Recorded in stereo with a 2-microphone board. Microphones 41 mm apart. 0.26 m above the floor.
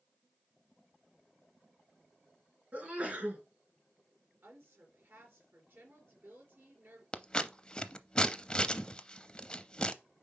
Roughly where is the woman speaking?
Right.